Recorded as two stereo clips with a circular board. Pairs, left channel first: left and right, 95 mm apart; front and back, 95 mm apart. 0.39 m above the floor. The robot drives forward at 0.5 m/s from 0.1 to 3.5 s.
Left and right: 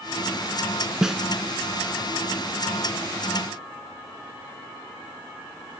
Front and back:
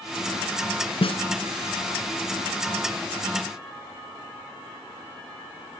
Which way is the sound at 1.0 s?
5° right.